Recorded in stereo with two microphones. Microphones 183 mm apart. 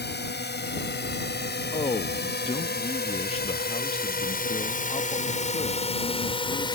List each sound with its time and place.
0.0 s a drone: 75° left (ahead or behind); by 6.8 s 25° left (ahead or behind)
1.7 s a man speaking: 35° left (ahead or behind)